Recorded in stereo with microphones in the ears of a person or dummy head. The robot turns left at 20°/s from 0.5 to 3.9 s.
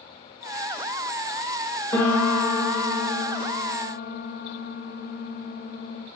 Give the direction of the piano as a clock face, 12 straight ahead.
7 o'clock.